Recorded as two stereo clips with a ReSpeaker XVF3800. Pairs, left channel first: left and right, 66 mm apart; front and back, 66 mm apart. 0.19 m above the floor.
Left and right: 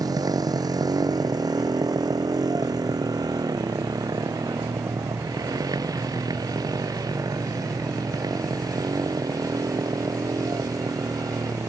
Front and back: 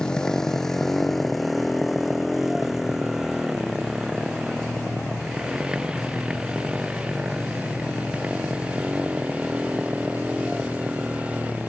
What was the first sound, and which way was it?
A motorcycle, 80° right.